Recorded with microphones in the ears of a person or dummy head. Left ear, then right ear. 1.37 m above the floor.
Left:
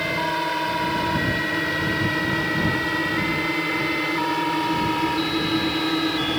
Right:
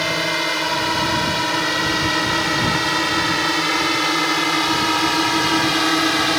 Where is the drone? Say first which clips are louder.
Right 3 dB; 30° right (ahead or behind); by 6.4 s 45° right (ahead or behind).